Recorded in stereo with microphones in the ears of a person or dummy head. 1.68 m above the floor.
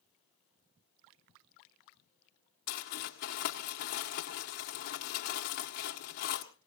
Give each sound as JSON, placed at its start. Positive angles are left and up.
{"t": 2.7, "sound": "crumpling", "side_deg": 50, "distance_m": 1.8}